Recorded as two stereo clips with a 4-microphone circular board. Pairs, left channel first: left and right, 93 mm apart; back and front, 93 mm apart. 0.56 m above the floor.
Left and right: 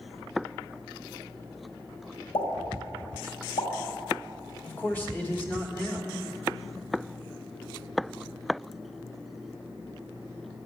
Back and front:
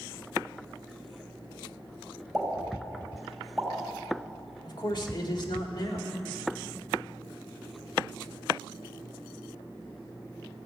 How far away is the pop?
About 2 m.